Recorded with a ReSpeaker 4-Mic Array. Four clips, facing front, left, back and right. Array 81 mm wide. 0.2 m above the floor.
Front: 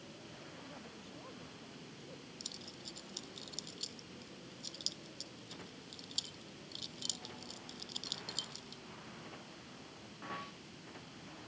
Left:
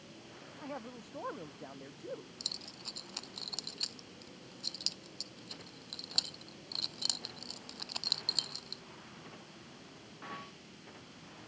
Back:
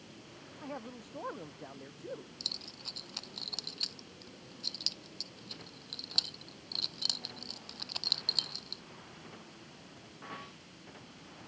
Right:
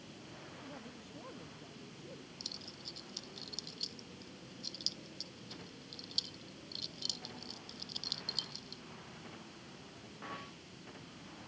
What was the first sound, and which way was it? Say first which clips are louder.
A man speaking: left 11 dB, back 8 dB; 135° left.